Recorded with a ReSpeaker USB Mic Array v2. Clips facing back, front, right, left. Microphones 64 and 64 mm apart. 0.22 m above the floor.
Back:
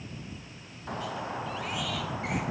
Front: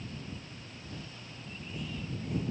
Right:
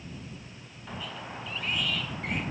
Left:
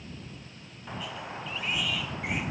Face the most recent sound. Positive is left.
turn(degrees=175)